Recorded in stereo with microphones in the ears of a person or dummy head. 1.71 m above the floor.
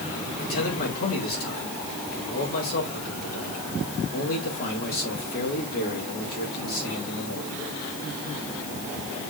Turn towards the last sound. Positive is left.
turn(degrees=50)  # may be behind; listen again after turning